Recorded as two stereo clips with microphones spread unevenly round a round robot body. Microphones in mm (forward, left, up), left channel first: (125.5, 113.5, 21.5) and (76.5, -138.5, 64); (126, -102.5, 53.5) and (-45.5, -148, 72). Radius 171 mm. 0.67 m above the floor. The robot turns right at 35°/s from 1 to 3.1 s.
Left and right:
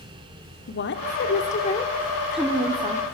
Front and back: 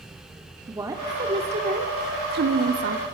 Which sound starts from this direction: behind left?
A woman speaking, at 0.7 s.